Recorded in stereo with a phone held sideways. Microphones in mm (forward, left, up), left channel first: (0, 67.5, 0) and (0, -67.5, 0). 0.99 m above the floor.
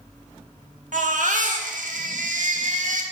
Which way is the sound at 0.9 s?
75° right (ahead or behind).